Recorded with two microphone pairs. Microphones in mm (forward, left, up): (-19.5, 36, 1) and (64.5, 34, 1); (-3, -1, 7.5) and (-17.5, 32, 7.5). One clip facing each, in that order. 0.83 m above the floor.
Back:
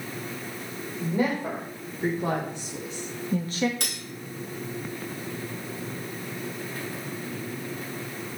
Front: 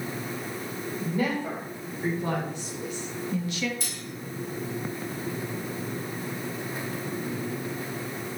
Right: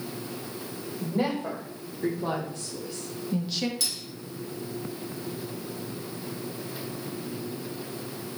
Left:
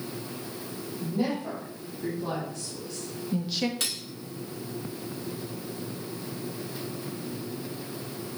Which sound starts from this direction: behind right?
A woman speaking, at 1.0 s.